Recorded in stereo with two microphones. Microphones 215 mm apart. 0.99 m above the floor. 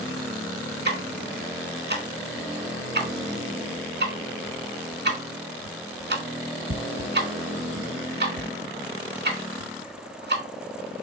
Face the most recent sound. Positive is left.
turn(degrees=-50)  # may be behind; listen again after turning